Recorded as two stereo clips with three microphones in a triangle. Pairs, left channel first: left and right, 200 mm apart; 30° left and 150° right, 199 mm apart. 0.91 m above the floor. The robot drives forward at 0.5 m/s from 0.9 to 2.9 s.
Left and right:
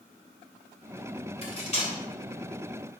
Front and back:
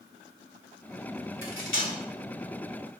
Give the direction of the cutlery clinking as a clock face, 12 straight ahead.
11 o'clock.